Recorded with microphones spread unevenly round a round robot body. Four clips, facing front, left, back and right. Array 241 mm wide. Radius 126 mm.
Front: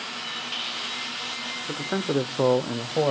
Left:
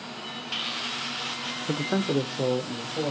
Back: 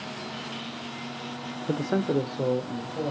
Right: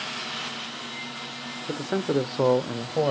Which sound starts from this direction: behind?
A man speaking, at 1.7 s.